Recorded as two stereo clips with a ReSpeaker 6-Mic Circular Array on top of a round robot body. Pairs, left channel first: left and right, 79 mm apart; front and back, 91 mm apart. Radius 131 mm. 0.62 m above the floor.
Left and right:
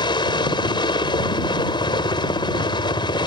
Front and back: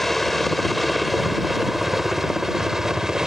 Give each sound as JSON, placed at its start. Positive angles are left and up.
{"t": 0.0, "sound": "a helicopter", "azimuth_deg": 90}